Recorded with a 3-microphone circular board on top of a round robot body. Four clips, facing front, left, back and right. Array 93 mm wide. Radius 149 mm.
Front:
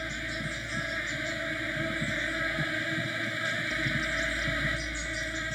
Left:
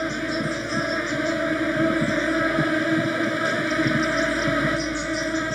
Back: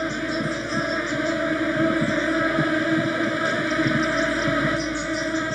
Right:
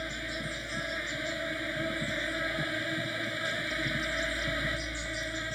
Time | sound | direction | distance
0.0 | an insect | 145° left | ?